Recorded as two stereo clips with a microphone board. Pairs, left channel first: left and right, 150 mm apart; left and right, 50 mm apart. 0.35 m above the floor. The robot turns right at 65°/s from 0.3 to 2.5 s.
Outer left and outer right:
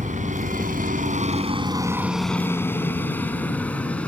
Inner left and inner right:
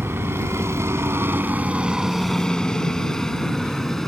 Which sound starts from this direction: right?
A helicopter, at 0.0 s.